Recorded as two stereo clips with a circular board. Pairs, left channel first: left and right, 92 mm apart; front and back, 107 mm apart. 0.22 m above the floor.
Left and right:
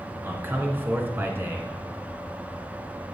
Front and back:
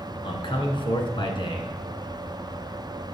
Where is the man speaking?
25° right, 2.5 m.